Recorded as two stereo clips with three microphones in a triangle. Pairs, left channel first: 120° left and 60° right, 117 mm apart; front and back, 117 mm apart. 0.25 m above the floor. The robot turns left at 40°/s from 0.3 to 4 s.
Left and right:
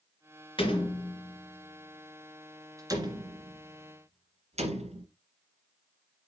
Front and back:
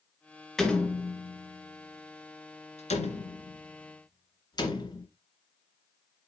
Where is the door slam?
85° left, 2 m; by 5.0 s 50° right, 2 m.